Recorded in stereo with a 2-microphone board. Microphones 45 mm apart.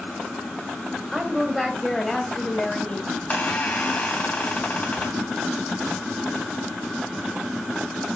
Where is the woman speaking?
5° right (ahead or behind), 1.6 m; by 3.0 s 25° left (ahead or behind), 1.9 m.